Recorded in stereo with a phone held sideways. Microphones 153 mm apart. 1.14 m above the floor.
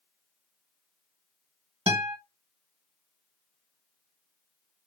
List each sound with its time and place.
1.9 s a guitar: 30° right (ahead or behind), 1.3 m